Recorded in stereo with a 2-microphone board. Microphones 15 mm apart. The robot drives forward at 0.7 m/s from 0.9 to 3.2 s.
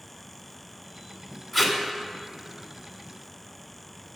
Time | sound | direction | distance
1.5 | tape being pulled | 15° left (ahead or behind) | 1.8 m